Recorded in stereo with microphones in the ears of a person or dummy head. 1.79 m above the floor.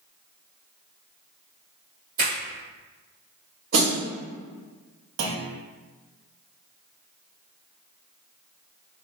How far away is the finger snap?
About 1.9 m.